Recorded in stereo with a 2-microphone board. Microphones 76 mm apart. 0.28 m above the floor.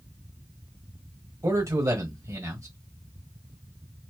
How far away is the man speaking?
About 1.7 m.